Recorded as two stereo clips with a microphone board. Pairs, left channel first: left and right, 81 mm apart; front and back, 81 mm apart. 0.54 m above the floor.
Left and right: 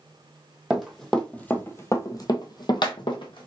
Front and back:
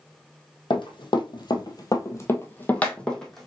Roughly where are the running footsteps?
Ahead.